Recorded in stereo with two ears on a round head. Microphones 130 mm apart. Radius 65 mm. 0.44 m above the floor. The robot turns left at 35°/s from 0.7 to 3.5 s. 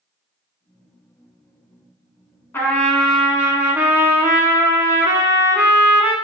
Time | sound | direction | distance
2.5 | a trumpet | 20° left | 0.5 m